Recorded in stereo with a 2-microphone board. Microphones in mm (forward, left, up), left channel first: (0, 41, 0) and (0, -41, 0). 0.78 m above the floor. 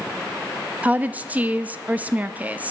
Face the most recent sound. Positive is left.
turn(degrees=-20)  # may be behind; listen again after turning